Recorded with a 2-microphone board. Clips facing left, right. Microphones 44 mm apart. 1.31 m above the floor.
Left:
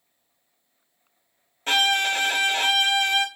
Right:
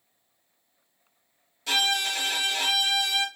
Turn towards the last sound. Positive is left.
turn(degrees=40)  # may be behind; listen again after turning